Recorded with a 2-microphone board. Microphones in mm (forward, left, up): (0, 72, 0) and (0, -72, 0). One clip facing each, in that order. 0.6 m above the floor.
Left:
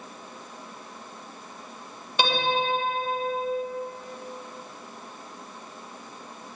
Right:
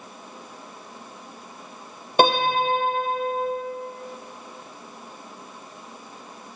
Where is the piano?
45° right (ahead or behind), 4 m.